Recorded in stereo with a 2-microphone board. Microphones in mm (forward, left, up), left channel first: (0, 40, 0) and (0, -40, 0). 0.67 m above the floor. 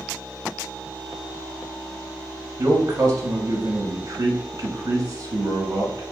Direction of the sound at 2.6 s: 45° right (ahead or behind).